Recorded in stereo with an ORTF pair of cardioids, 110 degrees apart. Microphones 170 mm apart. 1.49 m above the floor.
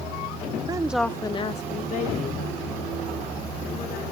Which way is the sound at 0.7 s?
25° right.